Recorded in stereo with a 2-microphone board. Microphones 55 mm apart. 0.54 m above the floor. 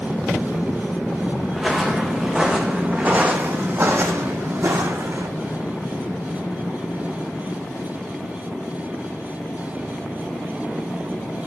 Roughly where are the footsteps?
Centre.